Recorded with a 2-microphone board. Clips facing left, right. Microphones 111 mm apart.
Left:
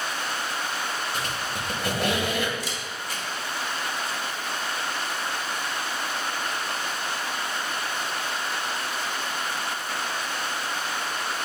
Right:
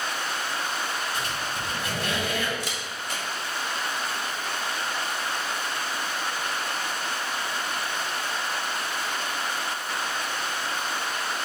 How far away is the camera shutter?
About 1.9 m.